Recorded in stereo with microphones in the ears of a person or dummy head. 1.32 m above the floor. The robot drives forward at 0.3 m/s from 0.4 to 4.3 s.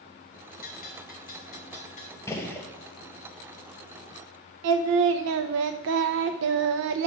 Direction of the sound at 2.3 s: 15° left (ahead or behind).